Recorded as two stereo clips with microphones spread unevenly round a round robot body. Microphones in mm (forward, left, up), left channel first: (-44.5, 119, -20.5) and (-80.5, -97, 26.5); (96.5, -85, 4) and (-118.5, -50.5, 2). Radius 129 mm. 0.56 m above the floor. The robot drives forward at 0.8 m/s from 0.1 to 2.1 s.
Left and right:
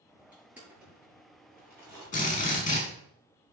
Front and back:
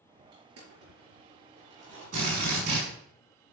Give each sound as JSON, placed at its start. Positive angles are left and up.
{"t": 0.3, "sound": "crushing", "azimuth_deg": 175, "distance_m": 5.5}
{"t": 2.1, "sound": "a drill", "azimuth_deg": 135, "distance_m": 5.5}